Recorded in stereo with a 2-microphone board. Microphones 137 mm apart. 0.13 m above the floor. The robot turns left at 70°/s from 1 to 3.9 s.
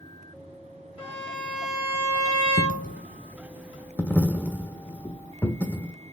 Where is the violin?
45° left, 2.5 m; by 3.0 s 95° right, 2.5 m.